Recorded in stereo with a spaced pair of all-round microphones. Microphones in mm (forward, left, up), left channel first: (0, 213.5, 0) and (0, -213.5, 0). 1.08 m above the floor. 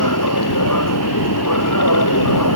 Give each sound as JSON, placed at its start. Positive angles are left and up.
{"t": 0.0, "sound": "a machine running", "side_deg": 45}